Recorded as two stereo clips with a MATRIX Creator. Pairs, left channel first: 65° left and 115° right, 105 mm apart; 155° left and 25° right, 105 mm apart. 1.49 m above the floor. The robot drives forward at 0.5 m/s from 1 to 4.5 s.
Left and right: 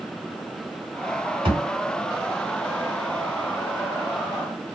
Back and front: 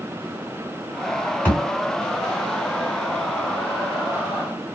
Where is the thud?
130° right, 2.5 m.